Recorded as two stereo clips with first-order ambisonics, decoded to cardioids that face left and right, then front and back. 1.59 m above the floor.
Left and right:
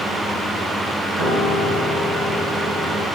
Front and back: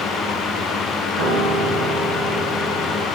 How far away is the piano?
About 3.5 m.